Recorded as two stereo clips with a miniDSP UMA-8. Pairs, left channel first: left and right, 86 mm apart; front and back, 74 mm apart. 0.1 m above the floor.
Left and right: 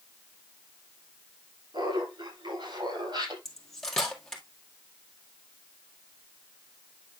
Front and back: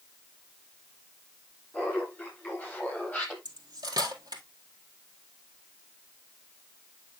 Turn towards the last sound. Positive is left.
turn(degrees=175)